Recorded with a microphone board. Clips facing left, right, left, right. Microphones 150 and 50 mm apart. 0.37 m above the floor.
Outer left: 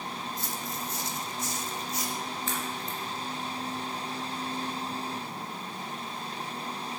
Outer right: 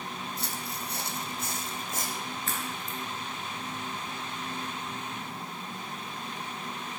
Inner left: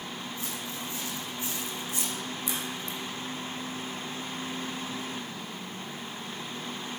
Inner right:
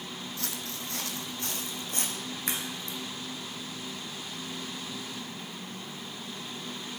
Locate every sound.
0.4 s footsteps: 75° right (ahead or behind), 1.1 m; by 2.2 s 50° right (ahead or behind), 1.4 m
2.5 s a crack: 55° right (ahead or behind), 2 m